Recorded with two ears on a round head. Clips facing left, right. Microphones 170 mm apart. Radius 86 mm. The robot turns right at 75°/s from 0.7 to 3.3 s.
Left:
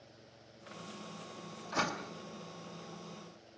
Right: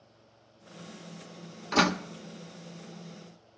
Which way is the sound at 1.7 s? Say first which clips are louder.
Right 11 dB; 80° right.